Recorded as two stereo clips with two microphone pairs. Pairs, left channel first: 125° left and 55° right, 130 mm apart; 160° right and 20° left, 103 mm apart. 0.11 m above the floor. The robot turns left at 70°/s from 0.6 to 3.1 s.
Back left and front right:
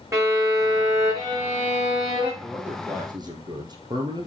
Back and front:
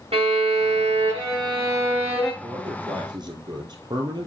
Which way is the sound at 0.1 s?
10° left.